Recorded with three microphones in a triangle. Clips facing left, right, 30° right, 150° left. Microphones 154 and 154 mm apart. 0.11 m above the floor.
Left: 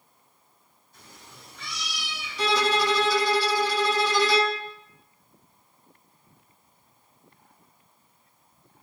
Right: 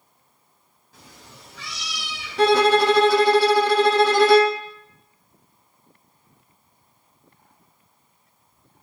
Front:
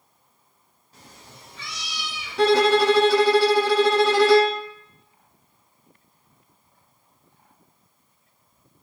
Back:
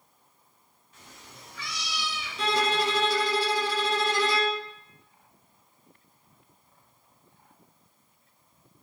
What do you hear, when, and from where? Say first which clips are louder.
0.9 s a cat meowing: right 3 dB, front 3 dB; 90° right, 3.5 m; by 3.1 s 125° right, 2.5 m
2.4 s a violin: right 8 dB, front 10 dB; 55° right, 0.9 m